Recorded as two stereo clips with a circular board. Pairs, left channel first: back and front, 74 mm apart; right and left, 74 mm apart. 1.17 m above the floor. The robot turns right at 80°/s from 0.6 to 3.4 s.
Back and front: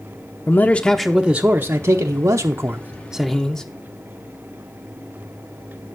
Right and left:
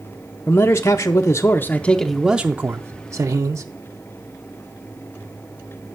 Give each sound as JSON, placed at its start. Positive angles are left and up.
{"t": 0.5, "sound": "a man speaking", "azimuth_deg": -125, "distance_m": 0.5}